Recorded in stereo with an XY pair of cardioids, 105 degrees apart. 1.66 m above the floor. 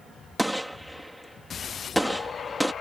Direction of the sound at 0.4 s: Straight ahead.